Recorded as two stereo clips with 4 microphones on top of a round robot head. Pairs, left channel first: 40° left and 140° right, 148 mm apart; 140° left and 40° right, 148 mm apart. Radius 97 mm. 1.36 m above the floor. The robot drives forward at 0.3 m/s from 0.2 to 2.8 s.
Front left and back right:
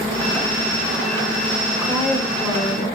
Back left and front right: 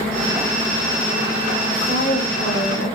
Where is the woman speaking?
130° left, 5.5 m.